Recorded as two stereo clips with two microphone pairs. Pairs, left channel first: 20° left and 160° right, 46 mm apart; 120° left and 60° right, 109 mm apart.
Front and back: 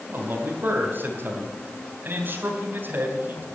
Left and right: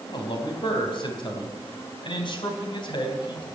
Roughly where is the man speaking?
Behind.